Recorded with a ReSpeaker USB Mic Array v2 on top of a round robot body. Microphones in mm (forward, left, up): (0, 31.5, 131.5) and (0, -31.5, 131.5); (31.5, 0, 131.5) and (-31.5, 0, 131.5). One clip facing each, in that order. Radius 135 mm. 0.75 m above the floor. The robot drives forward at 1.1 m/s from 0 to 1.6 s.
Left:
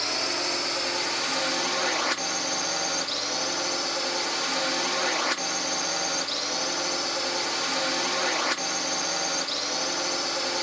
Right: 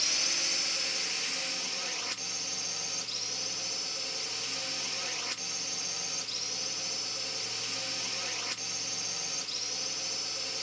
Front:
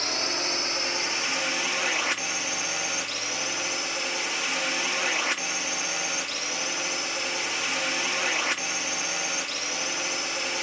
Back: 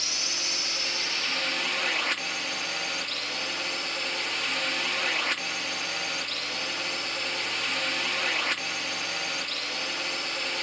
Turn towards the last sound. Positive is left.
turn(degrees=80)